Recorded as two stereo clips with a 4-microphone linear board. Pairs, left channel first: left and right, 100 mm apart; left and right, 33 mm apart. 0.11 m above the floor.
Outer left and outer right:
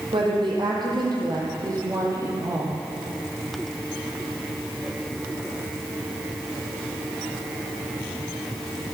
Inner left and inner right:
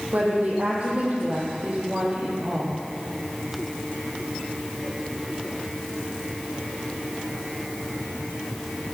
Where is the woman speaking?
55° right (ahead or behind), 4 m; by 2.8 s 20° right (ahead or behind), 3 m.